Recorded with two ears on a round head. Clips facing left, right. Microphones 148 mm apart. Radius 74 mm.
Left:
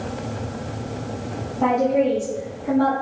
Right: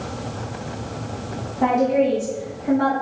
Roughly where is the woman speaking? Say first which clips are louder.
Right 1 dB; centre.